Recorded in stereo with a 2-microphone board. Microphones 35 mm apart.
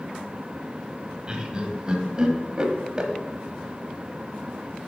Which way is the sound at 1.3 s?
25° right (ahead or behind).